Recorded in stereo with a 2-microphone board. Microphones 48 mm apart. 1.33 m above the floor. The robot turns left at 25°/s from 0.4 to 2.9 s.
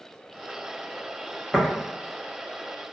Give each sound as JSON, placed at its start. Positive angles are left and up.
{"t": 1.5, "sound": "tapping", "side_deg": 15, "distance_m": 0.9}